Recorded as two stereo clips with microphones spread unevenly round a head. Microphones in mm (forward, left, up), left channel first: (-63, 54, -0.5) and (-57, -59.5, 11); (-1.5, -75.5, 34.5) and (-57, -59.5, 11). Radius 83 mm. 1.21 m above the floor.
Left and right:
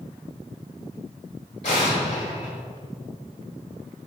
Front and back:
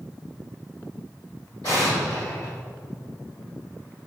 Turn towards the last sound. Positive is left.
turn(degrees=45)